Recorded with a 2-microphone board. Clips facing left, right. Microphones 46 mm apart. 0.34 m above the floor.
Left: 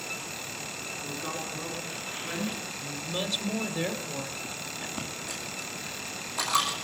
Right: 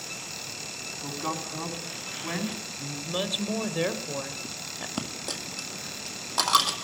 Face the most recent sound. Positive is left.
turn(degrees=-80)